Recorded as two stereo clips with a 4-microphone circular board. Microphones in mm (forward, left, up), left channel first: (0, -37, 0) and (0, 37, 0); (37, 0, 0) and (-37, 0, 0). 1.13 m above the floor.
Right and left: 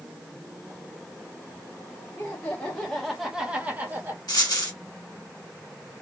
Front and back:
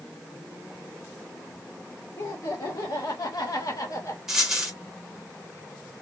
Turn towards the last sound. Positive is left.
turn(degrees=-100)